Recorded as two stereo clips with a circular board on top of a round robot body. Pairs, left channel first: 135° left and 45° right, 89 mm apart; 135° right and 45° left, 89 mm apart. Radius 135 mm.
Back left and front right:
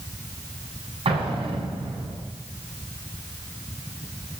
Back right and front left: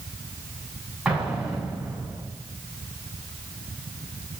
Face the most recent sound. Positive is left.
turn(degrees=-35)